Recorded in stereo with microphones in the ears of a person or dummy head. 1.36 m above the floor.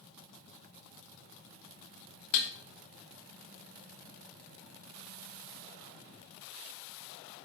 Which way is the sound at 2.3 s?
45° left (ahead or behind).